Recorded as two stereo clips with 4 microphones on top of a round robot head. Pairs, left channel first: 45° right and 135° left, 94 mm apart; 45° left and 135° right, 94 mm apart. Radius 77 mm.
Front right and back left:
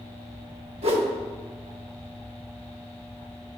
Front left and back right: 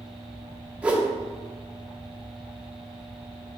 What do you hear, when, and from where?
0.8 s a whoosh: 145° left, 1.1 m